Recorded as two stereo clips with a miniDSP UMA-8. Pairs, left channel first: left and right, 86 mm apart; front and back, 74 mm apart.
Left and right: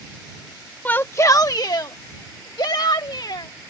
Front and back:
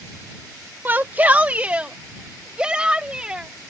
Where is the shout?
145° left; by 3.5 s 105° left.